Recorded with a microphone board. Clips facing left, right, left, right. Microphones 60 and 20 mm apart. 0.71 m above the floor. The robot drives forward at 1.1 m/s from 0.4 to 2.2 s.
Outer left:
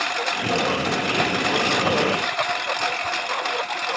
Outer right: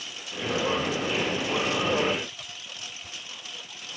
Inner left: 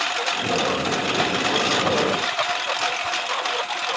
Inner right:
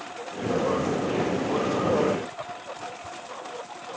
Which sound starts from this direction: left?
A lawn mower, at 0.0 s.